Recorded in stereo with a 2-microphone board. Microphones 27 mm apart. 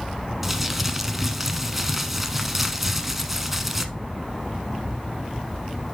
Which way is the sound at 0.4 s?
10° right (ahead or behind).